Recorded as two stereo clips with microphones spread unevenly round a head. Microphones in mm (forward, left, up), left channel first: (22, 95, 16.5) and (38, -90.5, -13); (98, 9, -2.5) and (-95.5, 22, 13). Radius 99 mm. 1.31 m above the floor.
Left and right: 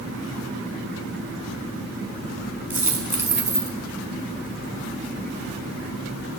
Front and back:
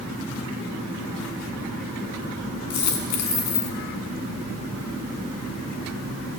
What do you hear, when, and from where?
2.7 s a dropped coin: 5° right, 6 m